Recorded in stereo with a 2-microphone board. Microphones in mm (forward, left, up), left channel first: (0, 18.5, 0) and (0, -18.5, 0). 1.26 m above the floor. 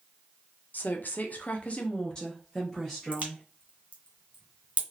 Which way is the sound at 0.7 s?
55° left (ahead or behind).